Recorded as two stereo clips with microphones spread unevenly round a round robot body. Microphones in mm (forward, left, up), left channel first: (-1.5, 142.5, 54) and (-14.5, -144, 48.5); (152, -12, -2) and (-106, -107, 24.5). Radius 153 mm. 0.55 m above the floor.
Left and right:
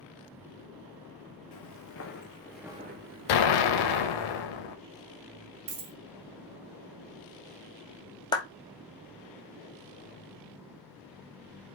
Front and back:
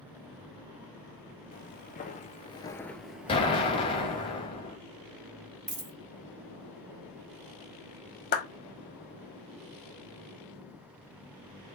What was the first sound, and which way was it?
Footsteps, 85° left.